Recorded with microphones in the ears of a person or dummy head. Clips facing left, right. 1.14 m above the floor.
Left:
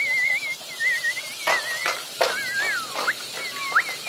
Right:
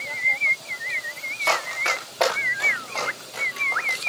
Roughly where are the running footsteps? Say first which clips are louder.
Even; centre.